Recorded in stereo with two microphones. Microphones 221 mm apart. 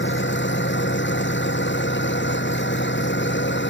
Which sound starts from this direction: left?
An engine running, at 0.0 s.